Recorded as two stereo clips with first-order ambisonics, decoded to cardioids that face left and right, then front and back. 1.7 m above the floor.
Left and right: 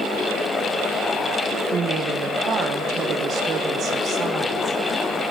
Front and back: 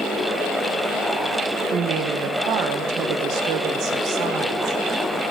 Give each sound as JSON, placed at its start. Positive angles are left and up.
{"t": 1.7, "sound": "a woman speaking", "azimuth_deg": -145, "distance_m": 1.0}